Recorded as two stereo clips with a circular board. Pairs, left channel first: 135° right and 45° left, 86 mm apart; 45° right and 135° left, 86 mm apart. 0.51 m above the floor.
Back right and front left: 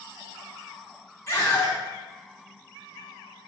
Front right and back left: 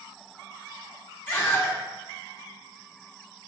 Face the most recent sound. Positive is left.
turn(degrees=-100)